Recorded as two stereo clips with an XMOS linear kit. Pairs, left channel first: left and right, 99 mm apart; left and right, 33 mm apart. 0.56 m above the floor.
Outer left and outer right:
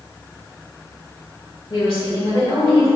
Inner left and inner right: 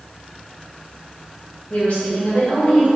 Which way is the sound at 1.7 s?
50° left (ahead or behind).